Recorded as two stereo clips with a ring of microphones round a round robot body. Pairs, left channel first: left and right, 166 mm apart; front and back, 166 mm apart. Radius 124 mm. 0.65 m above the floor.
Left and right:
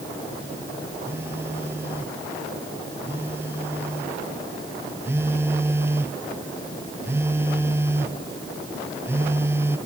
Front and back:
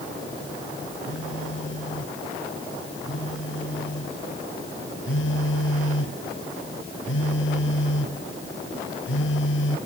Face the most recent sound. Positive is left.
turn(degrees=-15)